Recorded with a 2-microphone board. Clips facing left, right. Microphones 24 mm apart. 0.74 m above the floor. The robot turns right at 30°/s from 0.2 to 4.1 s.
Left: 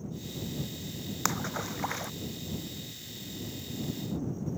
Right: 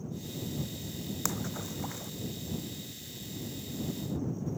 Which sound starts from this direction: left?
A splash, at 1.2 s.